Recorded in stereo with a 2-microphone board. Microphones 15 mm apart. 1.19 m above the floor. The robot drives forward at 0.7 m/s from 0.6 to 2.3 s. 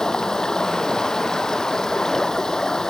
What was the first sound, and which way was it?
Running water, 35° left (ahead or behind).